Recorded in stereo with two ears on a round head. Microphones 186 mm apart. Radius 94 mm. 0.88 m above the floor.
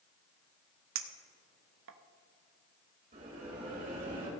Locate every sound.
0.9 s a clink: 65° right (ahead or behind), 0.8 m
3.1 s a bell: 40° right (ahead or behind), 3 m